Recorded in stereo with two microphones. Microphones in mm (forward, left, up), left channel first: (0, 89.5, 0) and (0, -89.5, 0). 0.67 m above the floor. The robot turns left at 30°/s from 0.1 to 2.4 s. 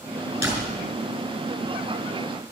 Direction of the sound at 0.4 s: 15° right (ahead or behind).